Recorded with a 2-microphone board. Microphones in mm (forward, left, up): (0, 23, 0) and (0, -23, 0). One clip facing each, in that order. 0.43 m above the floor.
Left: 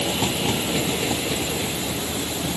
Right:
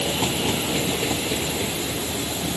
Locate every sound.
Only background noise.